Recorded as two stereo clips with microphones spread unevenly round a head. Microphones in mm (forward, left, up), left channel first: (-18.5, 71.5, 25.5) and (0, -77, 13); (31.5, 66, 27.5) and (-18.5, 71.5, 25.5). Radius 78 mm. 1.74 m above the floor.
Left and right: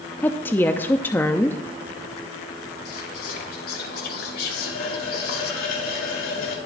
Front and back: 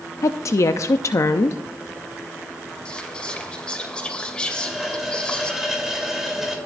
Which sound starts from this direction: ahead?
A woman speaking, at 0.2 s.